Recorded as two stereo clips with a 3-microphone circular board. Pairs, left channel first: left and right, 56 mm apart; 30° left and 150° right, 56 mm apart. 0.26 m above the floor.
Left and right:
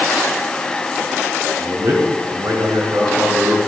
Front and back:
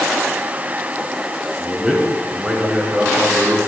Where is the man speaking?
70° right, 3 m; by 3.6 s 100° right, 4 m.